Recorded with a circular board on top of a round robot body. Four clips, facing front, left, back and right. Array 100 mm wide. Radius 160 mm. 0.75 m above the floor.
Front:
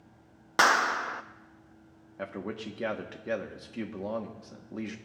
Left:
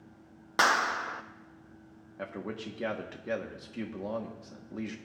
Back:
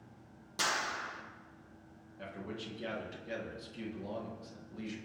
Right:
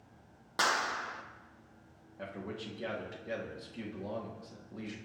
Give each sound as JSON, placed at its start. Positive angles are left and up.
{"t": 0.6, "sound": "a clap", "azimuth_deg": 25, "distance_m": 0.7}
{"t": 2.2, "sound": "a man speaking", "azimuth_deg": 30, "distance_m": 1.8}